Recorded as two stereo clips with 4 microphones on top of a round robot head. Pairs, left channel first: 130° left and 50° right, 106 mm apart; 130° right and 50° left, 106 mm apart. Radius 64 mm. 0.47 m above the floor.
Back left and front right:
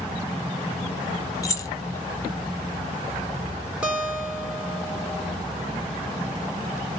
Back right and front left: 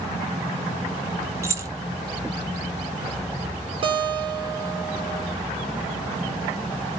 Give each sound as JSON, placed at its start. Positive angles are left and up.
{"t": 1.4, "sound": "keys jangling", "azimuth_deg": 95, "distance_m": 0.7}
{"t": 3.8, "sound": "a guitar", "azimuth_deg": 30, "distance_m": 1.7}